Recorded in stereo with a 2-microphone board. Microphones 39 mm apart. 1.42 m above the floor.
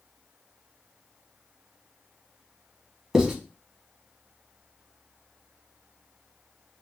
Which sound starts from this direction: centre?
Writing, at 3.1 s.